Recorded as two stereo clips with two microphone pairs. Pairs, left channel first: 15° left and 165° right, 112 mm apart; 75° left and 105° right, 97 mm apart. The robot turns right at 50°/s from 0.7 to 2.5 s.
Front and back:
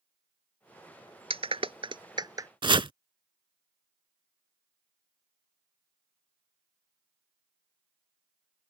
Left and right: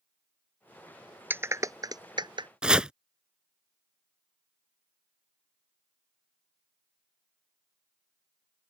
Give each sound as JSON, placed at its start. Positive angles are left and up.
{"t": 1.3, "sound": "a clap", "azimuth_deg": -170}
{"t": 2.6, "sound": "chopping", "azimuth_deg": 175}